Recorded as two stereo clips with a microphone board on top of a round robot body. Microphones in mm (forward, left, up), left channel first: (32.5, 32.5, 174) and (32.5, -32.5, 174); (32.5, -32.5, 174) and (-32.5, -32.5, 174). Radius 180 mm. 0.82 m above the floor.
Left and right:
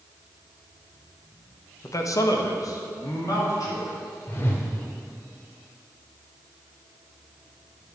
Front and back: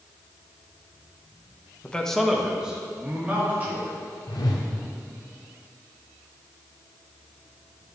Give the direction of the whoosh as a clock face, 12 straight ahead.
11 o'clock.